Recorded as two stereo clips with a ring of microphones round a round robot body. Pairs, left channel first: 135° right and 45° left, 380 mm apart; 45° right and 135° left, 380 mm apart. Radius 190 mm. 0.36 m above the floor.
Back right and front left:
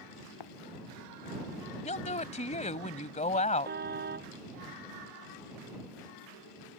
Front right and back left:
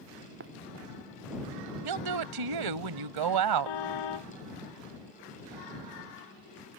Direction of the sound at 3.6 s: 20° right.